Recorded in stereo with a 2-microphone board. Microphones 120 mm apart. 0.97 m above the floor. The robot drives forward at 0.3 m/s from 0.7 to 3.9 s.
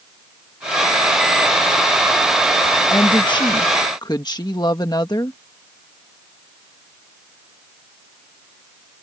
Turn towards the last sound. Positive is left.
turn(degrees=35)  # may be behind; listen again after turning